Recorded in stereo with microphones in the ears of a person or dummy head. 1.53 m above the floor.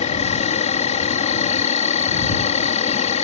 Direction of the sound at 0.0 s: 35° left (ahead or behind).